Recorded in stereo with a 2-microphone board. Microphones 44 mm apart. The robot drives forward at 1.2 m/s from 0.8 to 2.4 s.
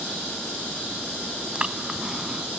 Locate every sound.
1.6 s breathing: 20° right (ahead or behind); by 2.6 s 15° right (ahead or behind)